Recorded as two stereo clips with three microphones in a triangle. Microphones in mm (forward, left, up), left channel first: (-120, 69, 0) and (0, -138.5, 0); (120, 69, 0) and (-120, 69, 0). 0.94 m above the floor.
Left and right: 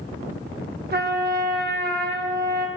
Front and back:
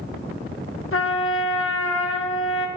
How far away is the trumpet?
About 1.0 m.